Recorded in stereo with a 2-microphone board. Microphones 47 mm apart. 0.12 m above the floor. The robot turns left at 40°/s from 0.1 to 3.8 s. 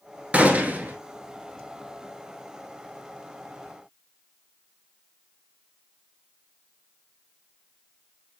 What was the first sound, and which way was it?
A gunshot, 25° right (ahead or behind).